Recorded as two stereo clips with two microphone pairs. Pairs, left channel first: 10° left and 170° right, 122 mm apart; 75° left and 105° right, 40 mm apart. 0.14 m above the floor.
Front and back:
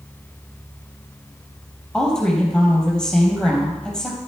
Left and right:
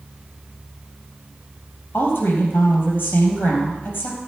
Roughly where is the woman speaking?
Left.